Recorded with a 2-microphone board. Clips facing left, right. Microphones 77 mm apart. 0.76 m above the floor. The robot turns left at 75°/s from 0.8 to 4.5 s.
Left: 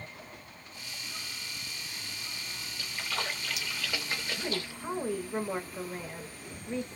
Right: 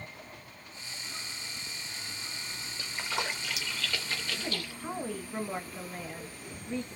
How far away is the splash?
About 0.7 m.